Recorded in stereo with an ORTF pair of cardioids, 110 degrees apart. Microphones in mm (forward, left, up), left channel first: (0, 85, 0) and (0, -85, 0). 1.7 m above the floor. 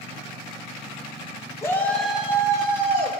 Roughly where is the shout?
Ahead.